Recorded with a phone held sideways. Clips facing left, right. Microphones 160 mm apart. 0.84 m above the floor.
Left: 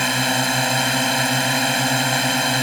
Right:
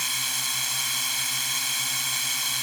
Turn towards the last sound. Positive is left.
turn(degrees=75)  # may be behind; listen again after turning